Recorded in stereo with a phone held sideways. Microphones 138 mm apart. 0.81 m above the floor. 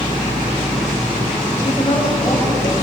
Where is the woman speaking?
35° left (ahead or behind), 5 m.